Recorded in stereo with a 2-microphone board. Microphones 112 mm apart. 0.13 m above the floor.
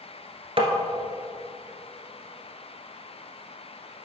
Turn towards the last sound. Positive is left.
turn(degrees=-50)  # may be behind; listen again after turning